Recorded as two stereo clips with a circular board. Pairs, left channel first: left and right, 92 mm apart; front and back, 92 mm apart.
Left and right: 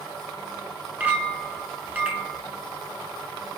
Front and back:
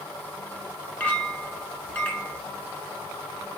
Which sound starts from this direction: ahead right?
A clink, at 1.0 s.